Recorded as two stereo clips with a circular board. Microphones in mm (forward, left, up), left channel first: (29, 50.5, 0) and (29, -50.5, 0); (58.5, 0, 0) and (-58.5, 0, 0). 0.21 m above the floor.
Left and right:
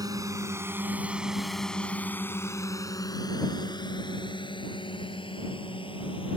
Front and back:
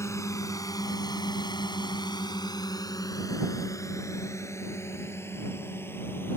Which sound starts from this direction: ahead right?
A drone, at 0.0 s.